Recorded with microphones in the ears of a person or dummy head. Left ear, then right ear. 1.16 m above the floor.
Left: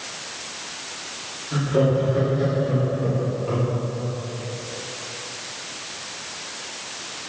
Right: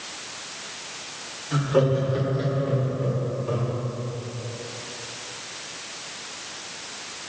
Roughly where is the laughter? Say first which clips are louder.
Left 1 dB; right.